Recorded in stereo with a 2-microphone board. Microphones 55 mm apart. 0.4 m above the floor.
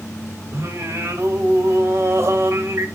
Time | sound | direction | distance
0.5 | singing | 55° right (ahead or behind) | 2.0 m